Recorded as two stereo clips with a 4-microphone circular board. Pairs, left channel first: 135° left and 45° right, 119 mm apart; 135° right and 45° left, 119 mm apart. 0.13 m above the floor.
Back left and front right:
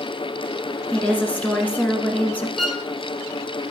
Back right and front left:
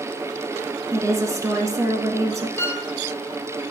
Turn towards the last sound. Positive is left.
turn(degrees=-135)